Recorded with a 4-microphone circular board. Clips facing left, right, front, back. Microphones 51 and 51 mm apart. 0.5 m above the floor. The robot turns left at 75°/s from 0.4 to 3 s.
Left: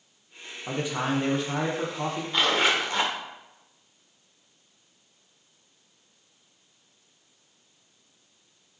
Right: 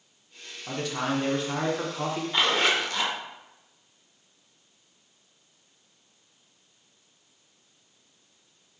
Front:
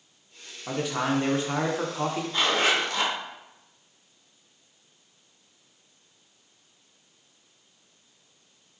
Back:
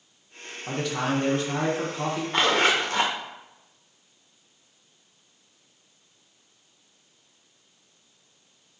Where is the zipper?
170° right, 0.9 m; by 3.1 s 140° left, 0.9 m.